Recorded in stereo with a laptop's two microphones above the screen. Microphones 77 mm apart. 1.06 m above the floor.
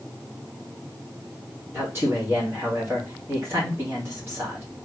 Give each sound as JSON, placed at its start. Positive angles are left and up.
{"t": 1.7, "sound": "a man speaking", "side_deg": -35, "distance_m": 2.5}